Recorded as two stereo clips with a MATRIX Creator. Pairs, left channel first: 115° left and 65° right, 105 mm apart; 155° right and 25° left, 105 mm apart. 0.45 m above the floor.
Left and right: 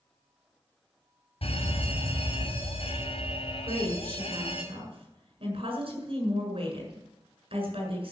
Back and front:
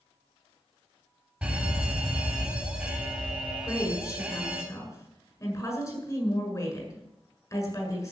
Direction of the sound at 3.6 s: 100° right.